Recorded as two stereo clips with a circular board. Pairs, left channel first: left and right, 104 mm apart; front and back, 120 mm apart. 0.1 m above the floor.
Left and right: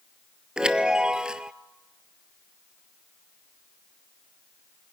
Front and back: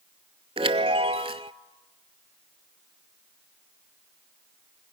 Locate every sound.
0.6 s a chime: 170° right, 0.5 m